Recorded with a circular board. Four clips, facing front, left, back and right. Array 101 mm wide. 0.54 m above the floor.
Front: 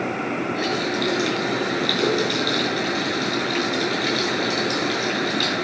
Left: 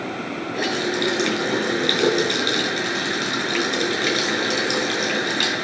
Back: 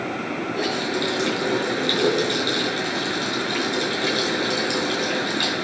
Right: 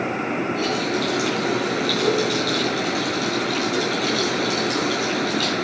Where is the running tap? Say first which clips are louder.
Right 1 dB, front 1 dB; 85° left, 6 m.